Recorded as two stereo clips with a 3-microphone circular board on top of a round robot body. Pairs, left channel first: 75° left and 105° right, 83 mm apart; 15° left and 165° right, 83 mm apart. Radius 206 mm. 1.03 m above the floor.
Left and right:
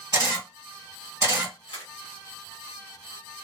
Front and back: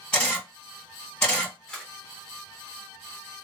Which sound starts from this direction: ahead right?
A camera shutter, at 0.1 s.